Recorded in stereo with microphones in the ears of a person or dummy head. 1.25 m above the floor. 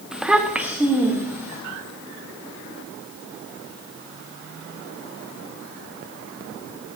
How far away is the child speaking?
About 0.9 m.